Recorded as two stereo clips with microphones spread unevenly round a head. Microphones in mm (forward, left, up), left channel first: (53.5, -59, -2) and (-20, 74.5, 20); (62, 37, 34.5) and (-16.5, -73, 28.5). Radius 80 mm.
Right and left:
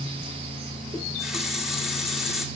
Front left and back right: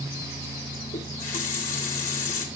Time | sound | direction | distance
0.9 | a running tap | 35° left | 2.5 m